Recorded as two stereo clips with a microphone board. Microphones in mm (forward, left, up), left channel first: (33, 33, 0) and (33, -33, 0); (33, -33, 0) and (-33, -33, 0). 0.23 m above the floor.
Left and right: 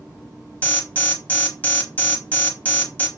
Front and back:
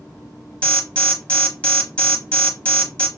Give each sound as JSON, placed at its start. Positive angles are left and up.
{"t": 0.6, "sound": "an alarm", "azimuth_deg": 50, "distance_m": 0.8}